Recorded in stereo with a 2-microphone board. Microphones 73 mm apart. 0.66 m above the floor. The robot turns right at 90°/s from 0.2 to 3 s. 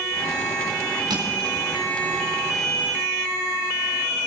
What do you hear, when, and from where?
1.1 s crushing: 75° right (ahead or behind), 4 m; by 1.3 s 80° right, 4 m